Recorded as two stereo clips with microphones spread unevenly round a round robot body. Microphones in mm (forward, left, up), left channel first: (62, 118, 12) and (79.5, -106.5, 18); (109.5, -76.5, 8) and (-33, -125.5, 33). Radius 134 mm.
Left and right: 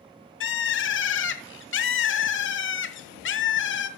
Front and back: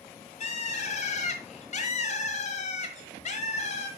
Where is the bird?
65° left, 1.2 m.